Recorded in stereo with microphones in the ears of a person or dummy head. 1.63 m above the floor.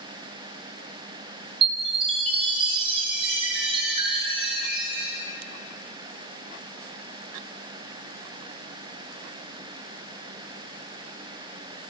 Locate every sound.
1.6 s a chime: 35° right (ahead or behind), 3 m